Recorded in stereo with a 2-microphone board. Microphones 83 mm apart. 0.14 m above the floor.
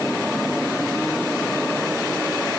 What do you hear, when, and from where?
Only background noise.